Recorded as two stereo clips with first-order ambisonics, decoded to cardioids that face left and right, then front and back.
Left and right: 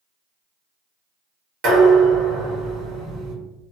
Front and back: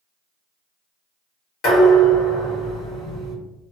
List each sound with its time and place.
1.6 s dishes clattering: 45° right, 1.7 m